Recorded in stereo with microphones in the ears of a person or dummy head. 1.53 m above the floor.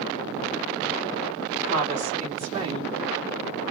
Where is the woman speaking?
35° right (ahead or behind), 2.5 m; by 3.0 s 20° right (ahead or behind), 1.6 m.